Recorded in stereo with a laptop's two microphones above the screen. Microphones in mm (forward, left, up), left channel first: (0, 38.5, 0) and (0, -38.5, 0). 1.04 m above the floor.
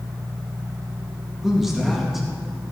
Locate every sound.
1.4 s a man speaking: 5° right (ahead or behind), 1.7 m